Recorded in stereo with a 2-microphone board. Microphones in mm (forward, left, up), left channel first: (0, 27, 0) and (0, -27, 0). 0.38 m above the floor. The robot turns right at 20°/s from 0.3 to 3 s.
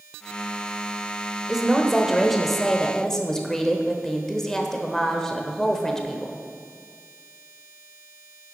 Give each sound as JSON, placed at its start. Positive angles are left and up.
{"t": 1.5, "sound": "a woman speaking", "azimuth_deg": -10, "distance_m": 1.1}